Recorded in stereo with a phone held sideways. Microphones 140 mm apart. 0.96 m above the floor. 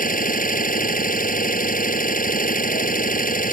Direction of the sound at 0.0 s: 80° left.